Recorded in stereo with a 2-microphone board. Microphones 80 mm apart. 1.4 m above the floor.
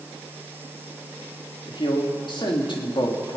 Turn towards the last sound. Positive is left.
turn(degrees=85)